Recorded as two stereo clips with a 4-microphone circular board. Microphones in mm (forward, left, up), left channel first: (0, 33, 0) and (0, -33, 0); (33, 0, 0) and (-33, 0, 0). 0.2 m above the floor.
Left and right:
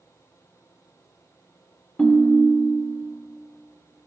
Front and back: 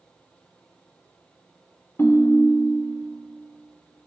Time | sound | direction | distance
2.0 | a ringtone | 15° left | 0.6 m